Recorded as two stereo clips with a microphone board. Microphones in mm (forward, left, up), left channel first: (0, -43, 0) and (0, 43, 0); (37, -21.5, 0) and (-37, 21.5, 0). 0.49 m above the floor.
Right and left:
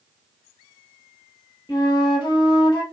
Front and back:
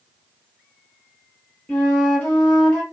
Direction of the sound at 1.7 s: 105° right.